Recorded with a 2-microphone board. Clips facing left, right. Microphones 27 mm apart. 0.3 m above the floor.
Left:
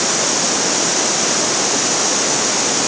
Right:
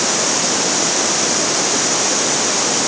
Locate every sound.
Only background noise.